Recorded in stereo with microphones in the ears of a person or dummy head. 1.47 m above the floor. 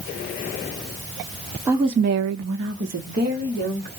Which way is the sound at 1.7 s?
15° right (ahead or behind).